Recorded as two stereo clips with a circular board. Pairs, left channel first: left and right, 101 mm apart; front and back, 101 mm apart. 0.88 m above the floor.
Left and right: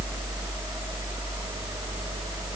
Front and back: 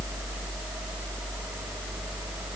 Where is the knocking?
No knocking in this recording.